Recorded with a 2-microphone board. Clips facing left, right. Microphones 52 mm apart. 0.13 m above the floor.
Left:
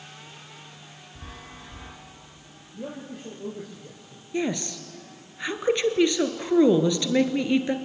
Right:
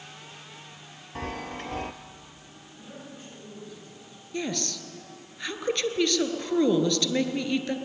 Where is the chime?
70° right (ahead or behind), 1.5 m.